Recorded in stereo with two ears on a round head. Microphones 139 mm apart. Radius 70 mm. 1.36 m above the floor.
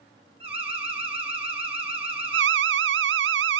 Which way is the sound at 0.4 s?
40° right (ahead or behind).